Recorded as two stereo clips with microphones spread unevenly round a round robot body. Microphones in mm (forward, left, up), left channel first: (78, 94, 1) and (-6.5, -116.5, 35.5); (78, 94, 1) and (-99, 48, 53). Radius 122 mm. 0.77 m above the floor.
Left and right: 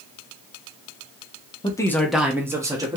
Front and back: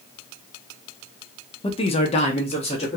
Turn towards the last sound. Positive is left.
turn(degrees=-35)